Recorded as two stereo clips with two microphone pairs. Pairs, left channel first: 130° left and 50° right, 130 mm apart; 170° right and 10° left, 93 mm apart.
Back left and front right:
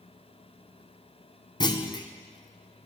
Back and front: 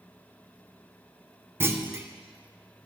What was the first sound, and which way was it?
A clunk, 75° left.